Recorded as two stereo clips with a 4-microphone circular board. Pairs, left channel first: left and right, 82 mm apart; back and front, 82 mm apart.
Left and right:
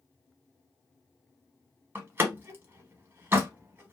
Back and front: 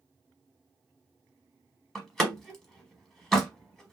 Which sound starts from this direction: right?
A door slam, at 1.9 s.